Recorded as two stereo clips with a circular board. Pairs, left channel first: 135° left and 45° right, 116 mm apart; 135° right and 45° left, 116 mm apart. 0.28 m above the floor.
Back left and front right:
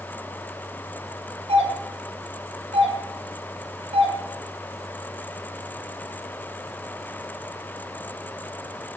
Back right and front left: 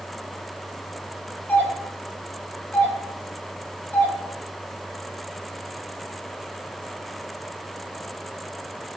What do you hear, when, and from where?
1.5 s a doorbell: 60° right, 5 m